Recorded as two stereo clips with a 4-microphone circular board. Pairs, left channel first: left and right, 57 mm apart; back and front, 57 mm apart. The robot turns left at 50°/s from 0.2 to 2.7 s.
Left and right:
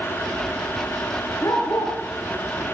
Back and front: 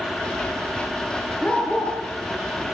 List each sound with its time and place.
1.4 s a dog barking: 120° left, 6 m; by 2.6 s 60° left, 6 m